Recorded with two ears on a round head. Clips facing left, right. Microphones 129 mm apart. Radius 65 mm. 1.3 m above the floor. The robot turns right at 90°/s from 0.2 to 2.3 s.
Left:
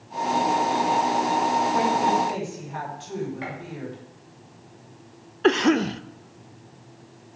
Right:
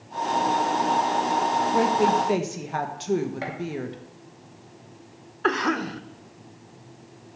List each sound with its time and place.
1.7 s a woman speaking: 150° right, 1.4 m; by 4.0 s 95° right, 1.4 m
3.4 s a gunshot: 55° right (ahead or behind), 2 m
5.4 s a cough: 30° left (ahead or behind), 0.5 m